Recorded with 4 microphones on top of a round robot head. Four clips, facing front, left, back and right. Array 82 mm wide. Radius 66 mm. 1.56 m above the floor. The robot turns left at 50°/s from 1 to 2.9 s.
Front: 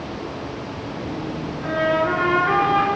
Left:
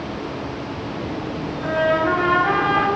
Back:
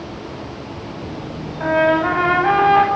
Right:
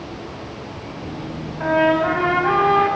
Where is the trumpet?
140° right, 8.5 m; by 2.9 s 160° left, 8.5 m.